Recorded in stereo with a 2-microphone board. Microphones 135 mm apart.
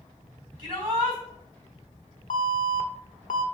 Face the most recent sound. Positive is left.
turn(degrees=65)  # may be behind; listen again after turning